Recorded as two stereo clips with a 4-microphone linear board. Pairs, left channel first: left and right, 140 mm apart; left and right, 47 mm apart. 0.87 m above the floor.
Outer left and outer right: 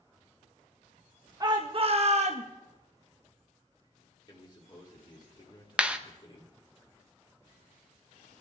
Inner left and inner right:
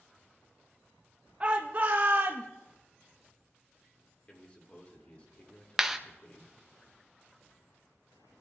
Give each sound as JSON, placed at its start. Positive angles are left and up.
{"t": 1.4, "sound": "a shout", "side_deg": -25, "distance_m": 0.9}
{"t": 4.3, "sound": "a man speaking", "side_deg": 35, "distance_m": 2.5}
{"t": 5.8, "sound": "a clap", "side_deg": -10, "distance_m": 0.7}